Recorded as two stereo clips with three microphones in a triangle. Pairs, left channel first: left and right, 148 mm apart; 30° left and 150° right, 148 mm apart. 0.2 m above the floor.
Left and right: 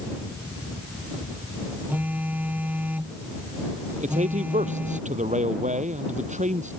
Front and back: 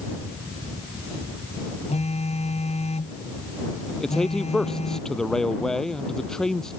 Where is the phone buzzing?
10° right.